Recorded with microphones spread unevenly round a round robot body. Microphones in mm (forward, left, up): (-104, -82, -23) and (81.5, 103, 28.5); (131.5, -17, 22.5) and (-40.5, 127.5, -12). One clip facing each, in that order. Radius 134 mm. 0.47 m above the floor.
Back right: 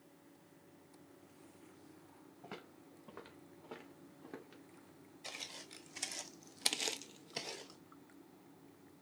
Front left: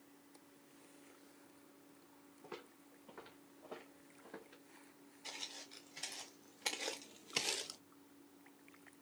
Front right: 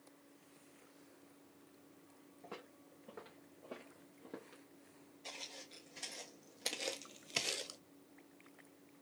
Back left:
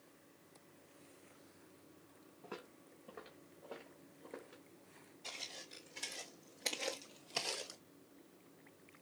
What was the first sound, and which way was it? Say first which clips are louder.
Footsteps: even, back left 2 dB; 130° right.